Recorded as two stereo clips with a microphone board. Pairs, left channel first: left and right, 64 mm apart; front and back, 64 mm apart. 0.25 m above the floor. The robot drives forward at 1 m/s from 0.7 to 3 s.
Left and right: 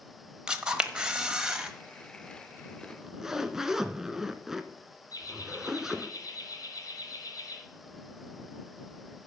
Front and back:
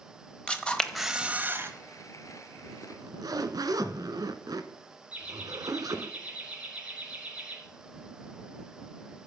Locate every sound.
0.5 s a camera shutter: 40° right, 1.0 m; by 1.7 s 165° right, 1.2 m
2.8 s a zipper: 170° right, 0.6 m; by 6.1 s 175° right, 0.7 m
5.1 s laughter: 110° left, 4 m